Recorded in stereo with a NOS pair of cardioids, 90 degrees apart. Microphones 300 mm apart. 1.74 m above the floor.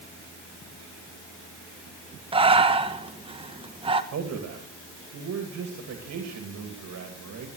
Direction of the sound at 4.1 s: 60° right.